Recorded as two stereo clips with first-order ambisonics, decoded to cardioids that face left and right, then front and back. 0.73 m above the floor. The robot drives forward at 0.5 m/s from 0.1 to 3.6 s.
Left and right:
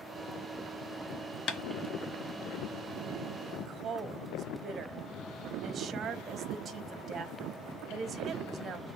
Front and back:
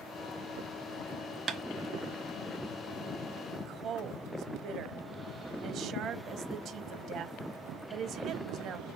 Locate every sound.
1.5 s tapping: 120° left, 0.6 m; by 1.6 s 125° left, 0.6 m
3.5 s a woman speaking: 150° right, 0.6 m; by 8.9 s 155° right, 0.7 m